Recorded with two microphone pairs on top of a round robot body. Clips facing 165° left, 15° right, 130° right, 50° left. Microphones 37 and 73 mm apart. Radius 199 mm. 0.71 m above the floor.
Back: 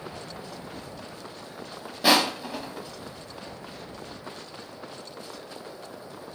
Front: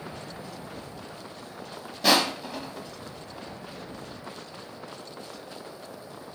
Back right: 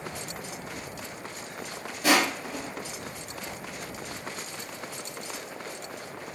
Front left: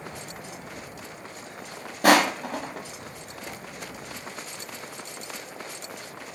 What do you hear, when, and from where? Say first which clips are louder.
2.0 s crushing: back 1 dB, front left 5 dB; 85° left, 1.0 m